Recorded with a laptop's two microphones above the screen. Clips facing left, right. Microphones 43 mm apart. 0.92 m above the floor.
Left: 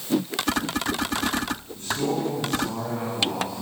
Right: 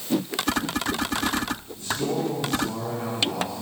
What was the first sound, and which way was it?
A man speaking, 45° left (ahead or behind).